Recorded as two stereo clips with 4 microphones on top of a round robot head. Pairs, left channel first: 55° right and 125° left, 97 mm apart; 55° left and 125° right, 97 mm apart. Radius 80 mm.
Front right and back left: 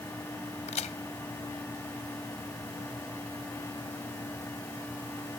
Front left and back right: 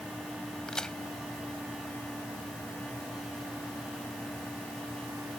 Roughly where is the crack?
Ahead right.